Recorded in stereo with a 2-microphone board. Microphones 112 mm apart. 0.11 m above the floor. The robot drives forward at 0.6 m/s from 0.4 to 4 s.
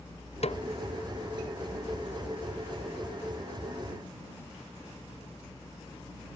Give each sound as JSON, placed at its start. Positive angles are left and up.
{"t": 0.4, "sound": "a snare drum", "side_deg": 65}